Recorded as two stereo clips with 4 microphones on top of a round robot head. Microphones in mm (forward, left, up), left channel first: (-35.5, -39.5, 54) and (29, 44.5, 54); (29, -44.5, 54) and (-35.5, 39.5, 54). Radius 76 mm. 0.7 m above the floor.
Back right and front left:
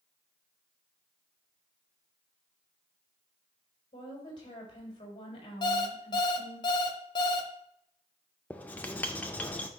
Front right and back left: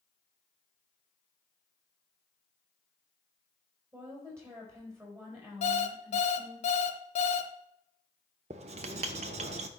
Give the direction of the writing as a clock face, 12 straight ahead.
7 o'clock.